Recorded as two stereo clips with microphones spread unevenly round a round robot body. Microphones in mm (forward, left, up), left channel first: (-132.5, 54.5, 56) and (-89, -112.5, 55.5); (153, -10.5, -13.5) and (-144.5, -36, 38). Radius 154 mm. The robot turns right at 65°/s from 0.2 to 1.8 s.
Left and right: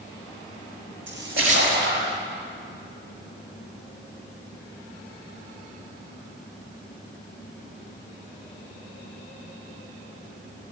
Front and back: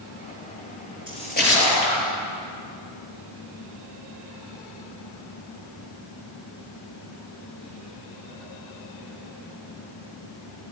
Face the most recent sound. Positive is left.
turn(degrees=-30)